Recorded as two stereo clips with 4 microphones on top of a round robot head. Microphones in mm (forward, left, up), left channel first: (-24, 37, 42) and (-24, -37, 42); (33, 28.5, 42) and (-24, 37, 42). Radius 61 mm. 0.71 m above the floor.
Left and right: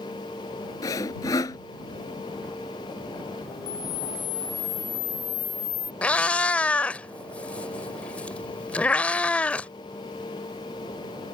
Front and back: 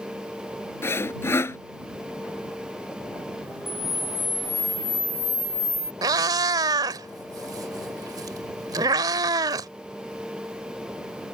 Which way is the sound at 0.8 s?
40° left.